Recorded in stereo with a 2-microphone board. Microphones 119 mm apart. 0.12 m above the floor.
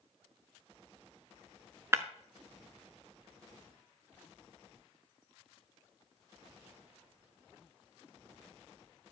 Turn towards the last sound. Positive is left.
turn(degrees=-25)  # may be behind; listen again after turning